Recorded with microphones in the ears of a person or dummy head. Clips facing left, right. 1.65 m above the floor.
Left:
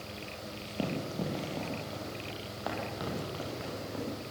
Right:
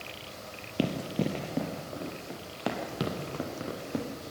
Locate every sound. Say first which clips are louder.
0.8 s running footsteps: right 5 dB; 20° right (ahead or behind), 1.7 m; by 4.1 s 45° right (ahead or behind), 3 m